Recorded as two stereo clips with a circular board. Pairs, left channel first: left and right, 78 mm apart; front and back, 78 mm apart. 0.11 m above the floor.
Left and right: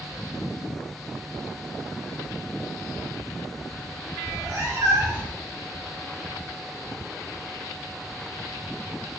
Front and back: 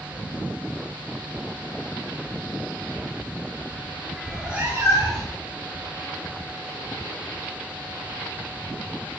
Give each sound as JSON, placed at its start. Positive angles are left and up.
{"t": 4.2, "sound": "a cat meowing", "azimuth_deg": -80, "distance_m": 0.7}